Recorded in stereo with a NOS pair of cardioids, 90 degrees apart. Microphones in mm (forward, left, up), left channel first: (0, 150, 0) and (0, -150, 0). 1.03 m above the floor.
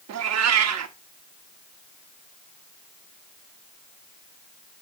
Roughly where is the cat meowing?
Ahead right.